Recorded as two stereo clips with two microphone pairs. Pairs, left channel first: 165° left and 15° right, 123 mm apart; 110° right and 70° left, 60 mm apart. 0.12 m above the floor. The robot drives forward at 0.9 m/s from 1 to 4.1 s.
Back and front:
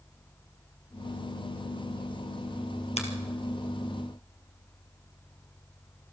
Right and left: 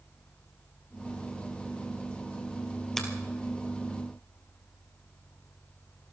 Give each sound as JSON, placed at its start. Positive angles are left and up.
{"t": 3.0, "sound": "a finger snap", "azimuth_deg": 170, "distance_m": 2.5}